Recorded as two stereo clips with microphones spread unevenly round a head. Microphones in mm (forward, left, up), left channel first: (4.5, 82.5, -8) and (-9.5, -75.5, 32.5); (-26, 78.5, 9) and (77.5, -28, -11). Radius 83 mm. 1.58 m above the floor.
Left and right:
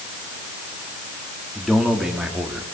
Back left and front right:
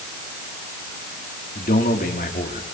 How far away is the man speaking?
About 4 m.